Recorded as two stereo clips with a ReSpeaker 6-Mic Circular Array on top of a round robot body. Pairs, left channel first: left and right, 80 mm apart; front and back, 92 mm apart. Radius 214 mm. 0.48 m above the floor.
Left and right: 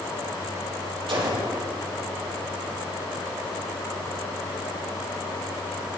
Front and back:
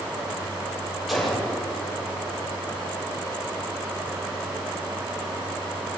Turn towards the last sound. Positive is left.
turn(degrees=-90)